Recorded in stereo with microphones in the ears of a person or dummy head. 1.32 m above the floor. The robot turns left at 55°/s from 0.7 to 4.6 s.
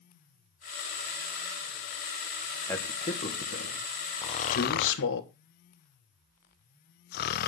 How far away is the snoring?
About 0.7 m.